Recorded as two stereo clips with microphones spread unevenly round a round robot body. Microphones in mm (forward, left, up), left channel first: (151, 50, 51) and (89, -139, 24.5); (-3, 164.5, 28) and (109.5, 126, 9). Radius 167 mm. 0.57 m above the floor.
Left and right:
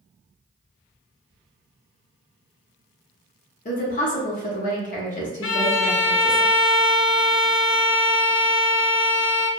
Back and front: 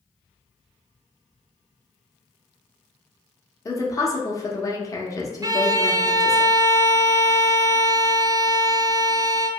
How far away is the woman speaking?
About 0.8 m.